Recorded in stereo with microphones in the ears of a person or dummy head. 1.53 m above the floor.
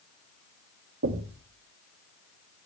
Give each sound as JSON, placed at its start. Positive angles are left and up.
{"t": 1.0, "sound": "knocking", "side_deg": -80, "distance_m": 2.5}